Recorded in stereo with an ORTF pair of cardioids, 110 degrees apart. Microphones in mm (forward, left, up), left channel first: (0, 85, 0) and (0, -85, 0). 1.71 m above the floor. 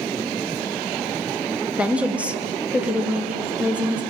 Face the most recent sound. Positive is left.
turn(degrees=-5)